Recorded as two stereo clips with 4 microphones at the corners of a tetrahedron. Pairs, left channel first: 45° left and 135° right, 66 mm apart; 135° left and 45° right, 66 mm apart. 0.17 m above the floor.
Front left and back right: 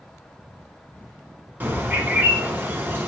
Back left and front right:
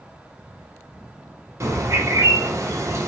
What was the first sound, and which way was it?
A bird, 80° right.